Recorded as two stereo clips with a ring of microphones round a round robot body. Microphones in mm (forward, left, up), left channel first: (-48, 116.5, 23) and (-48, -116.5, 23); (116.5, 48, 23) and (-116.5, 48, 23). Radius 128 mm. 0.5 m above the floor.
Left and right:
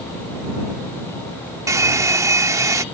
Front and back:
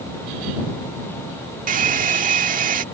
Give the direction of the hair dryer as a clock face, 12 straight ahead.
5 o'clock.